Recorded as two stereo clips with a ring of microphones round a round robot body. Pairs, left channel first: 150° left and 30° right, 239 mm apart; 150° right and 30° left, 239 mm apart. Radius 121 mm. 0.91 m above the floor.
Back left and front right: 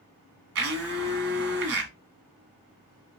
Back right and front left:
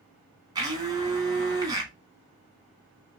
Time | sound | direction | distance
0.6 | a blender | 40° right | 1.2 m